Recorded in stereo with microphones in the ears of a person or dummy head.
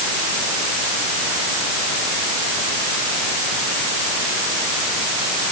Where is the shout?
No shout in this recording.